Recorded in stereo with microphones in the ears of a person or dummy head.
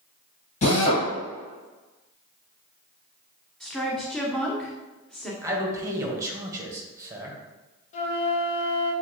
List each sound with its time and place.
0.6 s a drill: 45° left (ahead or behind), 1.8 m
3.6 s a woman speaking: centre (ahead or behind), 1.0 m
5.4 s a man speaking: 20° right (ahead or behind), 1.2 m
7.9 s a flute: 40° left (ahead or behind), 1.1 m